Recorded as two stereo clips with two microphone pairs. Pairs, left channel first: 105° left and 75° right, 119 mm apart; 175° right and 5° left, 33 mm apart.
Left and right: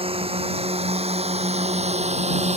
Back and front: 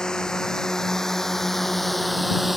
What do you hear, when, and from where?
0.0 s a drone: 105° right; by 2.6 s 80° right